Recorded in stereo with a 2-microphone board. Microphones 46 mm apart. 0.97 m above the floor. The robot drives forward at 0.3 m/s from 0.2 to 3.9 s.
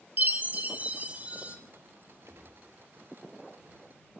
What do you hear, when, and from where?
0.2 s a chime: 35° right (ahead or behind), 0.7 m; by 1.6 s 25° right (ahead or behind), 0.9 m
2.3 s a gunshot: 65° right (ahead or behind), 1.3 m; by 2.6 s 60° right (ahead or behind), 1.4 m